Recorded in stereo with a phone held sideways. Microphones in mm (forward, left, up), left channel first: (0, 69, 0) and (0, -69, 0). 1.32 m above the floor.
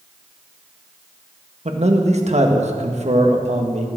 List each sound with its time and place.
1.6 s a man speaking: 55° right (ahead or behind), 1.6 m